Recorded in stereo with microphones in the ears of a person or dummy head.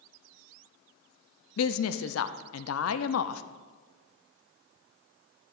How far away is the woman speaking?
About 0.7 m.